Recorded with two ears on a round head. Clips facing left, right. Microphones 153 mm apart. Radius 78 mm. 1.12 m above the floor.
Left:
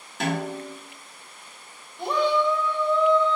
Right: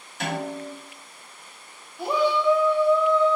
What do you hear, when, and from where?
0.2 s a snare drum: 65° left (ahead or behind), 1.6 m
2.0 s a shout: 5° right (ahead or behind), 0.6 m